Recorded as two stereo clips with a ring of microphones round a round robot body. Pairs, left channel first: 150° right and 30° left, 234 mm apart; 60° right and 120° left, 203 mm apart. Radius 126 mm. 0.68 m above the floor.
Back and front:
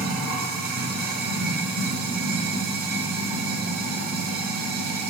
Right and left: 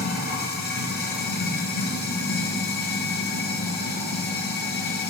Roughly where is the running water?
Ahead.